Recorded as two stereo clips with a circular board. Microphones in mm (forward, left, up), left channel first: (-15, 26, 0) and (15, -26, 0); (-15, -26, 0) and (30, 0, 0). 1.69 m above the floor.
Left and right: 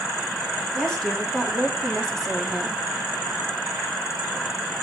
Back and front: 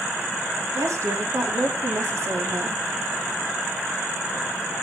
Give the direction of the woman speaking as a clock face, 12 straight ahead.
11 o'clock.